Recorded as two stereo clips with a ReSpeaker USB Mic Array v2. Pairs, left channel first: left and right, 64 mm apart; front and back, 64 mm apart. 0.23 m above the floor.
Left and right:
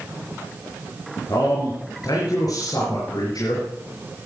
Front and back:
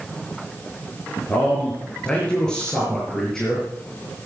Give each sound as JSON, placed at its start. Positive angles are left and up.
{"t": 1.3, "sound": "a man speaking", "azimuth_deg": 70, "distance_m": 4.0}